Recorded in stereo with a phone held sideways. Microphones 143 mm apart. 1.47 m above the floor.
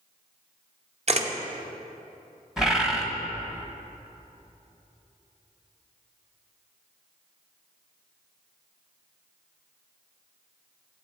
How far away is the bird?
About 1.0 m.